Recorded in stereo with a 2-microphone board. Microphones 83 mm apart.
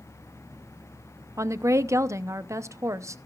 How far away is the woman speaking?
About 0.7 m.